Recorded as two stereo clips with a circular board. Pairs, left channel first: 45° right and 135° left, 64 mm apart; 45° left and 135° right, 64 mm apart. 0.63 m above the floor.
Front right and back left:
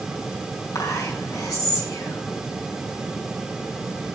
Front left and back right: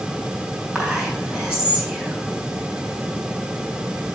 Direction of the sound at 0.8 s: 60° right.